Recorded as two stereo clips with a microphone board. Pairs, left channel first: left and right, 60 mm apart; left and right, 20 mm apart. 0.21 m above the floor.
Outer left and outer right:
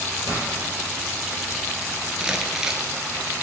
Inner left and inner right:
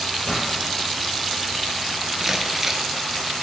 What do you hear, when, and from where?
0.2 s a pop: 75° left (ahead or behind), 6.5 m
2.2 s crumpling: 10° right (ahead or behind), 1.3 m